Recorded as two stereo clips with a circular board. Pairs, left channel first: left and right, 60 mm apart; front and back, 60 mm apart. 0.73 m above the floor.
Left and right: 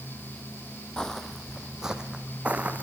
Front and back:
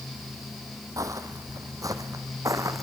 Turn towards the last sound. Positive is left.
turn(degrees=-150)